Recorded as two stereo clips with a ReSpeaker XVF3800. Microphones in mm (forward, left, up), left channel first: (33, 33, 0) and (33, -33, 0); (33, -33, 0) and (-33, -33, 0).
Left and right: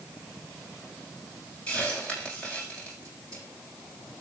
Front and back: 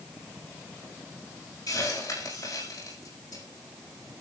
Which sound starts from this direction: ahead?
A hiss, at 1.7 s.